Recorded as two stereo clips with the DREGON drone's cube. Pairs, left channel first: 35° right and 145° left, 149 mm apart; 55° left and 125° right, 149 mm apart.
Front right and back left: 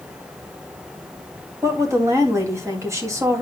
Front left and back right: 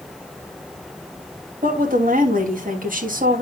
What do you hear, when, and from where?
1.6 s a woman speaking: 145° right, 2.5 m